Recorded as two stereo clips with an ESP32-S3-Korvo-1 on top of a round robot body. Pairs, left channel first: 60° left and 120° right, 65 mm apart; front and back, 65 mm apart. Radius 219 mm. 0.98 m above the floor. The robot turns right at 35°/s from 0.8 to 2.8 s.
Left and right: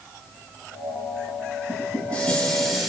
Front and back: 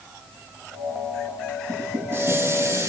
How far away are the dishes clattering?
About 8.5 m.